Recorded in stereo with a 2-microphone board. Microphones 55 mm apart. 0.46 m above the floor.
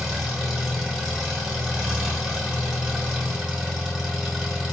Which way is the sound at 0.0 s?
15° right (ahead or behind).